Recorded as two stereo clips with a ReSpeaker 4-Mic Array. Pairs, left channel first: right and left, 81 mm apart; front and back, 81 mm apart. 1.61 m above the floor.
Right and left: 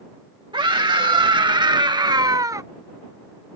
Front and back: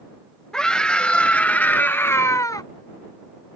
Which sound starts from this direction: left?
A scream, at 0.5 s.